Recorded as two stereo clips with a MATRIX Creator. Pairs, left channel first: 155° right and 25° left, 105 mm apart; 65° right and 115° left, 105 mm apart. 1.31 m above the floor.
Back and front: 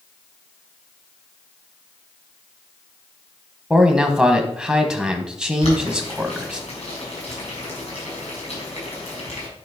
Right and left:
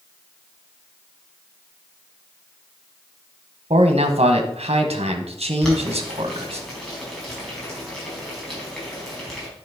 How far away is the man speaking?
About 1.3 m.